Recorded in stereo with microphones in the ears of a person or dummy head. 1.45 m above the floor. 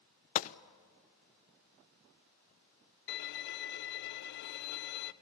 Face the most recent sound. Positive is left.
turn(degrees=65)  # may be behind; listen again after turning